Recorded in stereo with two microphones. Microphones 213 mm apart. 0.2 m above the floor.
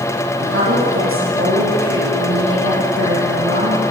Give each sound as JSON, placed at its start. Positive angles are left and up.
{"t": 0.4, "sound": "a woman speaking", "side_deg": -75, "distance_m": 9.0}